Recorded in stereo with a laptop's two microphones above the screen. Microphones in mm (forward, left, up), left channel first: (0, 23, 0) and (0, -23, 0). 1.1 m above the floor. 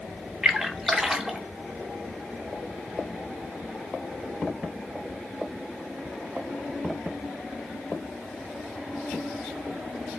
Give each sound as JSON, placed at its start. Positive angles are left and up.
{"t": 0.4, "sound": "a splash", "side_deg": -10, "distance_m": 0.7}